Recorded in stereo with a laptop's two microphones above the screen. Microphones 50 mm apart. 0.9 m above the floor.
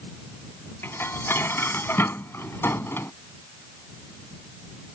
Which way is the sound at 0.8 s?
50° left (ahead or behind).